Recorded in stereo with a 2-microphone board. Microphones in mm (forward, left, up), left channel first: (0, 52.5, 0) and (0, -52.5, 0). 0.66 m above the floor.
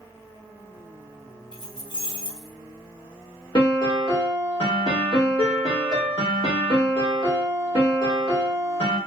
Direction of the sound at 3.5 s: 50° left (ahead or behind).